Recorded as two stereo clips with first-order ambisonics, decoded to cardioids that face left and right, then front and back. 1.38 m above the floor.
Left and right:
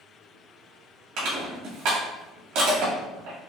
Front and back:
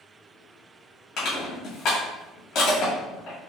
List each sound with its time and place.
1.2 s crushing: 50° right, 1.9 m